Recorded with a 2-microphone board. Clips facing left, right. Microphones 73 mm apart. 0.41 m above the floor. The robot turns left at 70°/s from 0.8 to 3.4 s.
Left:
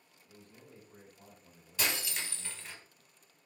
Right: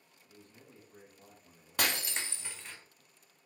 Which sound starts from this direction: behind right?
Breaking glass, at 1.8 s.